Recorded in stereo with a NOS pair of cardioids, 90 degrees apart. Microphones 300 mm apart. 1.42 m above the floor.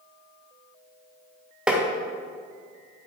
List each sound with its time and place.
1.7 s tapping: 5° right, 1.7 m